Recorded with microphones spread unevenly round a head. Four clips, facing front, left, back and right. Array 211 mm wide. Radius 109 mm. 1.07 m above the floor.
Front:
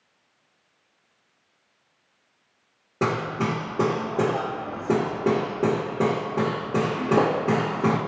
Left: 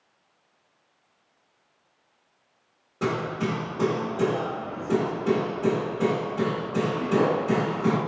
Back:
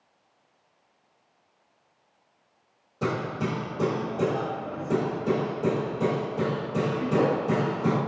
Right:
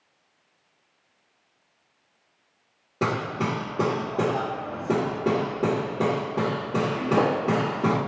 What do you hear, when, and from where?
3.0 s hammering: 30° right, 1.7 m